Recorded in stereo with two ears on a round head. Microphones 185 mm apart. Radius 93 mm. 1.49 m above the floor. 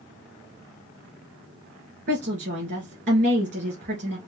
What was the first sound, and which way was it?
A woman speaking, 50° right (ahead or behind).